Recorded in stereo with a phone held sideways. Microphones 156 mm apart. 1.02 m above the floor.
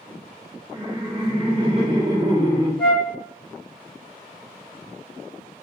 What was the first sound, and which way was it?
Laughter, 25° right (ahead or behind).